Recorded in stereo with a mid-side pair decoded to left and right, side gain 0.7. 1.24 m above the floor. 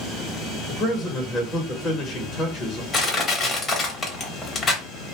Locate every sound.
0.7 s a man speaking: 30° left, 1.1 m
2.9 s crushing: 25° left, 1.1 m